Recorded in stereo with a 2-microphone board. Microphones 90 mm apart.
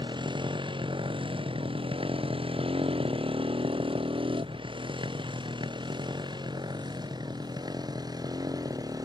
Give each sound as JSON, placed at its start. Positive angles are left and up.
{"t": 0.0, "sound": "a motorcycle", "side_deg": -55}